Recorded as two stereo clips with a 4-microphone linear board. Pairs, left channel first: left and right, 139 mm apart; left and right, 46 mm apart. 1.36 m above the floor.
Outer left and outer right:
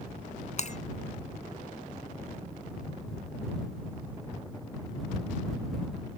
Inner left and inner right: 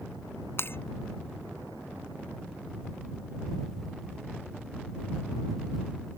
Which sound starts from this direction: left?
Breaking glass, at 0.6 s.